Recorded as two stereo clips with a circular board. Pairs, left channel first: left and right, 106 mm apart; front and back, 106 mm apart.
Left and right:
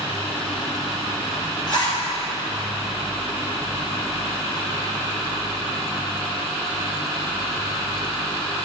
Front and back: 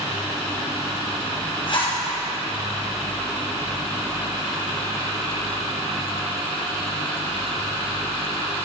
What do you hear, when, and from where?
1.7 s a zipper: 40° left, 3.5 m